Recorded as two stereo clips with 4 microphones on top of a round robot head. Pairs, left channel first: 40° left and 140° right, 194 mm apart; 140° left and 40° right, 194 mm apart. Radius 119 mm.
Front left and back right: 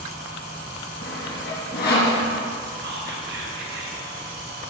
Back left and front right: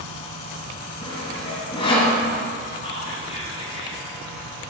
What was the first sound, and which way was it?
Sawing, 75° left.